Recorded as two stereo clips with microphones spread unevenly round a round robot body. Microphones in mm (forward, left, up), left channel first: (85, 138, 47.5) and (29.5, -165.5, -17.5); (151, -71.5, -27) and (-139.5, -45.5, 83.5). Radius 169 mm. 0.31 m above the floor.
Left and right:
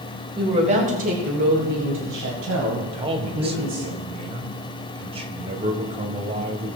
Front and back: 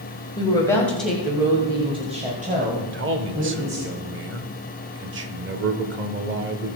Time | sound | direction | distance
0.4 | a woman speaking | 45° right | 1.9 m
2.8 | a man speaking | 130° right | 1.2 m